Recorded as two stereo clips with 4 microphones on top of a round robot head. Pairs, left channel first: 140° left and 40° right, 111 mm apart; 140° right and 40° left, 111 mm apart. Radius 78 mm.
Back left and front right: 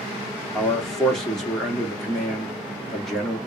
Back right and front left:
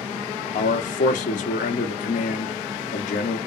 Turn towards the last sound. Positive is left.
turn(degrees=-135)